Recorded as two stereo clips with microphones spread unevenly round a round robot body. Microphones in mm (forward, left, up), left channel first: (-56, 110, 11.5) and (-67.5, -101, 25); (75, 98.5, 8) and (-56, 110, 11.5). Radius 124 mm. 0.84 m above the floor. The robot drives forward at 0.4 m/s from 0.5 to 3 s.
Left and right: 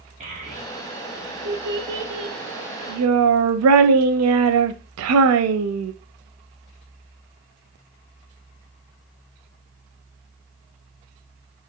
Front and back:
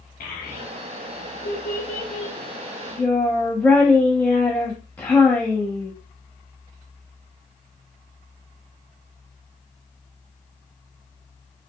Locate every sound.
0.2 s a child speaking: 30° right, 1.2 m; by 5.9 s 90° right, 0.6 m